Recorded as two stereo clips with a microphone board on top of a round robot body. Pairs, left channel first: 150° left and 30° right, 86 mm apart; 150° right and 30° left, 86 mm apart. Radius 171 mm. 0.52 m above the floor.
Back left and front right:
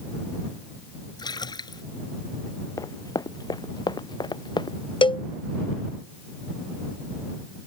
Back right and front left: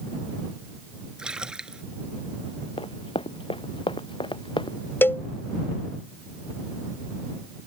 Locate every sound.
1.2 s a splash: 110° left
2.8 s running footsteps: 160° right; by 4.8 s straight behind
5.0 s a cowbell: 145° left